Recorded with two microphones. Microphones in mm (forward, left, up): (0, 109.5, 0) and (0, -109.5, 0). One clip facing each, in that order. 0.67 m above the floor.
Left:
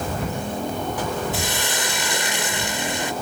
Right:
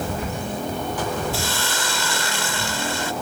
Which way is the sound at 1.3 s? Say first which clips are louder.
Even; 20° left (ahead or behind).